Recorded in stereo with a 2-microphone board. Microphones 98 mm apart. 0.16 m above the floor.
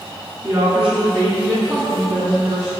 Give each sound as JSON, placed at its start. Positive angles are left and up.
{"t": 0.4, "sound": "a woman speaking", "side_deg": -15, "distance_m": 1.6}